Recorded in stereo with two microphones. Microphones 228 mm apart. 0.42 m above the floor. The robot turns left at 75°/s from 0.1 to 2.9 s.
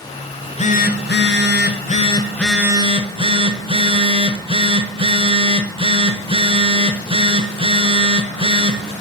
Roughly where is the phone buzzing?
Behind.